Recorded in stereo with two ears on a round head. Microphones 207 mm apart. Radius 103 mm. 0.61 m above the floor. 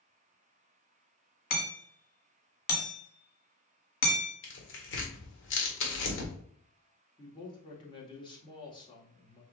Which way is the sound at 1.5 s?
40° left (ahead or behind).